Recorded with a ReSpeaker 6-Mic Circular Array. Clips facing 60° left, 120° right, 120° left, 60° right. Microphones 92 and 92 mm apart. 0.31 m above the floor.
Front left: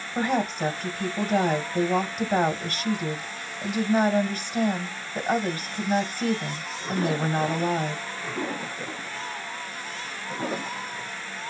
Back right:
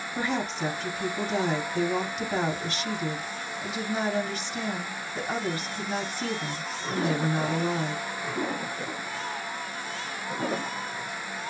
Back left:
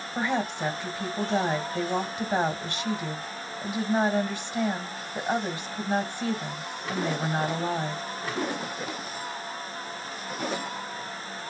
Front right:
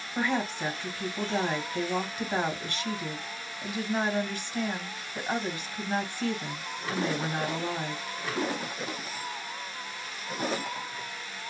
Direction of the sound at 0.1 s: 50° left.